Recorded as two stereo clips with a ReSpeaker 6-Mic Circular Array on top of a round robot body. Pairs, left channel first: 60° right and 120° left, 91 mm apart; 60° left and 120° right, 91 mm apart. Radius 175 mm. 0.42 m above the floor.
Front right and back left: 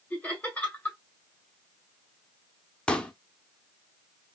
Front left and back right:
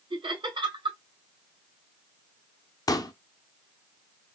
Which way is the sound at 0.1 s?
135° right.